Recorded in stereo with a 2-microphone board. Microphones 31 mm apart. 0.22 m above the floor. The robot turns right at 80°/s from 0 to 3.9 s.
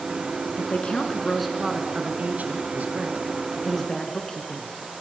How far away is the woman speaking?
About 2.5 m.